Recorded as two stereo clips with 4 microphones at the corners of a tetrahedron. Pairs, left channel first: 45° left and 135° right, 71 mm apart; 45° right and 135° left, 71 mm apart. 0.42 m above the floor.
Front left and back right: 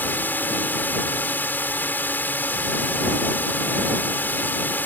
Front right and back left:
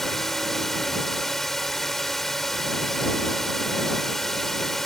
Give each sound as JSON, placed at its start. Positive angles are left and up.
{"t": 0.0, "sound": "a drone", "azimuth_deg": 35}